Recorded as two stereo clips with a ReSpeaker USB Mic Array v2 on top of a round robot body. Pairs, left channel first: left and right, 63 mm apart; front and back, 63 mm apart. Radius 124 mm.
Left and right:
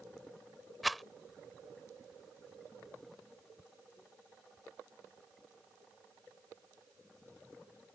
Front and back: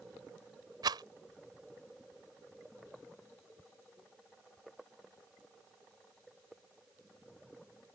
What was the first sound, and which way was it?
A rattle, straight behind.